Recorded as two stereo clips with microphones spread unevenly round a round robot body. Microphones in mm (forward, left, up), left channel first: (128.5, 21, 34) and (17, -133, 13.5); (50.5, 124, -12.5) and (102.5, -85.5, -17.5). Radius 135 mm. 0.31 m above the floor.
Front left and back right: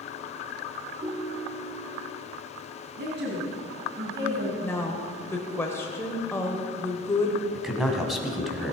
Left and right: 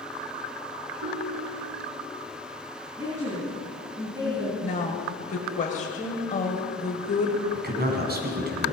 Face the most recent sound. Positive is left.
turn(degrees=-40)